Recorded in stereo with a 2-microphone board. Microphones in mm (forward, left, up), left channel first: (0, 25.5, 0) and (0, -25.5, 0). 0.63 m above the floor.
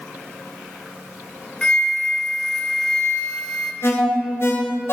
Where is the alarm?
55° left (ahead or behind), 2 m.